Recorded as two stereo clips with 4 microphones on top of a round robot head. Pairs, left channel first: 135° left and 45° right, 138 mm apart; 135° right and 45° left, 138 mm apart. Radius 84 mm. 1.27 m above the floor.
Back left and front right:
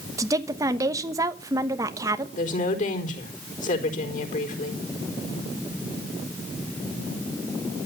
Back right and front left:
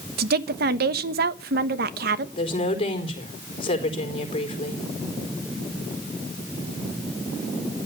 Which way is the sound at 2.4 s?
170° left.